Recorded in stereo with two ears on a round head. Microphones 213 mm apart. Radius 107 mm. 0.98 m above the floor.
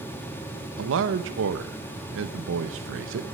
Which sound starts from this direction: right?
A man speaking, at 0.8 s.